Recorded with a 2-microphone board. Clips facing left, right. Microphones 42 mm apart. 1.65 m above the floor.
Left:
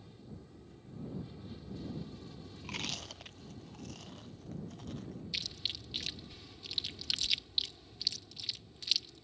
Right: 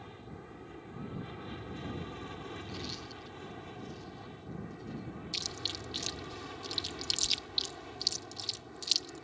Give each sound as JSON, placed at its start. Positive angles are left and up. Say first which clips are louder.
{"t": 0.0, "sound": "an aircraft", "louder": "right 5 dB", "side_deg": -55}
{"t": 2.6, "sound": "chewing", "louder": "left 1 dB", "side_deg": 75}
{"t": 5.3, "sound": "chewing", "louder": "right 1 dB", "side_deg": 15}